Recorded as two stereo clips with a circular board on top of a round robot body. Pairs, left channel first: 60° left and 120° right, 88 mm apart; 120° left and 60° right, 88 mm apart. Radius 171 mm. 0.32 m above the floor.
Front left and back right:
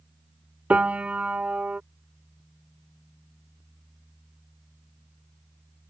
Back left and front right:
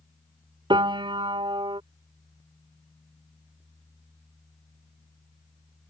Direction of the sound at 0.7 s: 45° right.